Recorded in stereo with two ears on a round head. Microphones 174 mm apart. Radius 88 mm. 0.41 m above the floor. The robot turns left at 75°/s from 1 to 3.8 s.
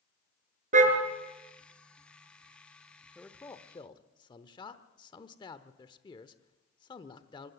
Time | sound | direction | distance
0.7 | a car horn | 45° right (ahead or behind) | 3.5 m
3.1 | a man speaking | 5° left (ahead or behind) | 1.0 m